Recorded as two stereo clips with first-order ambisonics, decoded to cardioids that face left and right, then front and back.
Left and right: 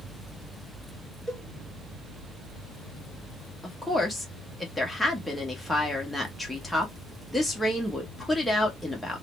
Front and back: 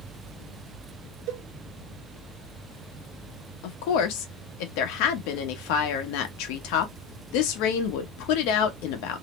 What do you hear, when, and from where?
1.3 s a cowbell: 170° right, 1.0 m
3.6 s a woman speaking: straight ahead, 0.9 m